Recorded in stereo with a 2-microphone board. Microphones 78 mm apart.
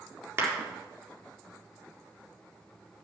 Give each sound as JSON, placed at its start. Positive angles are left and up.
{"t": 0.4, "sound": "a clap", "side_deg": -35, "distance_m": 4.0}